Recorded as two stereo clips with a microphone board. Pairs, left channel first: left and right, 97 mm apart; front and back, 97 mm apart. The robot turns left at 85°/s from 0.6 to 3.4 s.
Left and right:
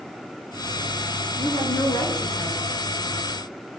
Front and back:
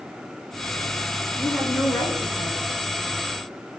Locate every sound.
1.4 s a woman speaking: 115° left, 5 m; by 2.6 s 10° left, 5 m